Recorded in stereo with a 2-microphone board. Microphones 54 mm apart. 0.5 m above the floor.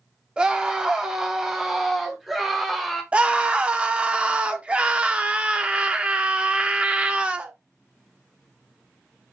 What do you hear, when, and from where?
0.4 s a scream: 20° right (ahead or behind), 0.9 m; by 3.0 s centre (ahead or behind), 1.5 m
3.1 s a scream: 20° right (ahead or behind), 0.7 m